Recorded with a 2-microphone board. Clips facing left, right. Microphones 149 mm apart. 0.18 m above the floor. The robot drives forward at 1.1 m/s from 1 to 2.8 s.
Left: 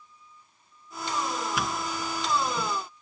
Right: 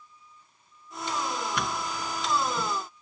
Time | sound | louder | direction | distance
1.6 | a doorbell | left 1 dB | centre (ahead or behind) | ?